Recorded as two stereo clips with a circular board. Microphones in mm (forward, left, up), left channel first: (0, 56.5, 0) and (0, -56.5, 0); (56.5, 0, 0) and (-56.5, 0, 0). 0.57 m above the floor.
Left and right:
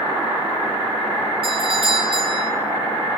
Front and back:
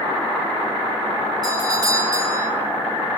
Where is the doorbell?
125° right, 8.5 m.